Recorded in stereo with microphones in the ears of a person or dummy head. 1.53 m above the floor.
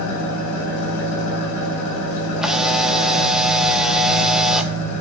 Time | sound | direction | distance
0.0 | an engine running | 75° left (ahead or behind) | 4 m
2.4 | a camera shutter | 5° right (ahead or behind) | 1.0 m